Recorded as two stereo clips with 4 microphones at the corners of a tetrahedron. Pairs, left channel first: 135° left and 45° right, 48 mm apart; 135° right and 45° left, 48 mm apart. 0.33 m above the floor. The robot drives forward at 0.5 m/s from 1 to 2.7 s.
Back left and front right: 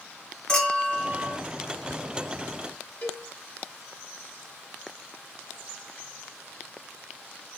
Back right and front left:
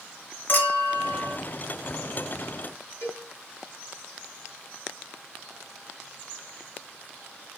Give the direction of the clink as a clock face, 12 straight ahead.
5 o'clock.